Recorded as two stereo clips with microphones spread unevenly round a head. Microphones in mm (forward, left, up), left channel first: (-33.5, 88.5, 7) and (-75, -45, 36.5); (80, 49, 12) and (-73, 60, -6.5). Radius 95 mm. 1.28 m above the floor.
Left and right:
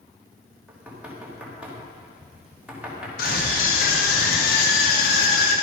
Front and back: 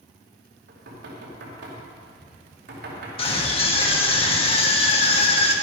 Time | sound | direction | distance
0.7 | knocking | 170° left | 2.5 m
3.2 | a scream | 50° left | 2 m